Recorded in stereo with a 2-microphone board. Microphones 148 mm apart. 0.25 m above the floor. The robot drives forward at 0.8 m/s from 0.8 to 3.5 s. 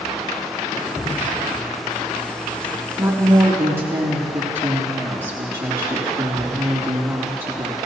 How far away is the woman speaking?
About 3.5 m.